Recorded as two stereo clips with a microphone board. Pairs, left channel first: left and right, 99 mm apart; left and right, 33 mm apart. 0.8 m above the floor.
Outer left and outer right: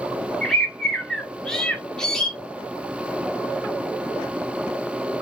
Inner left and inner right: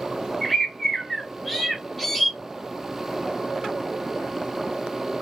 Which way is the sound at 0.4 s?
5° left (ahead or behind).